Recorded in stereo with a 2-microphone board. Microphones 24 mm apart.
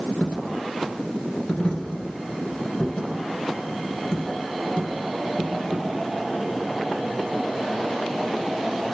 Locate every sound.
0.2 s a dropped coin: 40° left (ahead or behind), 1.6 m